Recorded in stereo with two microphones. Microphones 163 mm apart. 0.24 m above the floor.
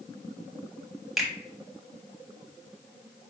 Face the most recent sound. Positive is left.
turn(degrees=0)  # may be behind; listen again after turning